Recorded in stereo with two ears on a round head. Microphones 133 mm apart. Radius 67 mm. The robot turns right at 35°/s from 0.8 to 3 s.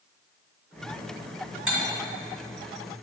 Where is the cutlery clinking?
Centre (ahead or behind), 2.0 m; by 1.8 s 5° right (ahead or behind), 2.0 m.